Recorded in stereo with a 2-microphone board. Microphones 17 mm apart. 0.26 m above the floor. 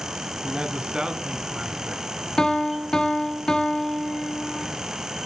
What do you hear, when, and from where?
0.4 s a man speaking: 50° right (ahead or behind), 1.5 m; by 2.0 s 65° right (ahead or behind), 3 m
2.4 s a piano: 40° left (ahead or behind), 1.7 m